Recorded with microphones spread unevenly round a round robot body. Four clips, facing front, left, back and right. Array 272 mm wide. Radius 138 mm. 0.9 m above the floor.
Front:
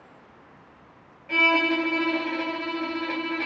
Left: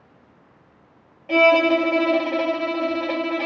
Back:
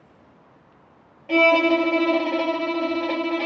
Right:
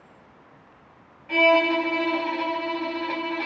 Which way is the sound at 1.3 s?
135° left.